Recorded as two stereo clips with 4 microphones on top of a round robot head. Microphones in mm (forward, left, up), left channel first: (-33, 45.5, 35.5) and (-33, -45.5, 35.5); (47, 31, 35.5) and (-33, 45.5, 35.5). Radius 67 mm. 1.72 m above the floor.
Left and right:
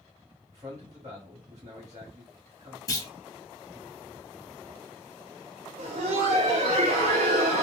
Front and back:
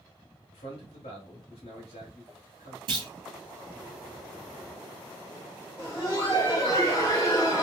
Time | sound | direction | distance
0.5 | a man speaking | 25° right | 1.3 m
2.9 | a clunk | 140° left | 0.9 m
5.8 | laughter | 80° right | 0.5 m